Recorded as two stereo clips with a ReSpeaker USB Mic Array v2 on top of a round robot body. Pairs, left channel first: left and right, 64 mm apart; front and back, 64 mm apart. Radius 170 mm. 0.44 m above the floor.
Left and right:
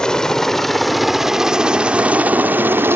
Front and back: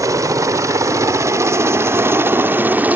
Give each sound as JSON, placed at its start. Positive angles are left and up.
{"t": 0.0, "sound": "a helicopter", "azimuth_deg": 170}